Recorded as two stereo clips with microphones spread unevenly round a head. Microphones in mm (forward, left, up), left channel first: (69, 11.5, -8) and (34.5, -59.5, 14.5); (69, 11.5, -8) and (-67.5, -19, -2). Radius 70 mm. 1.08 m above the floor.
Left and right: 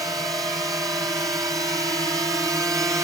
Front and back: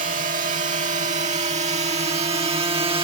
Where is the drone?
175° left; by 3.0 s 170° right.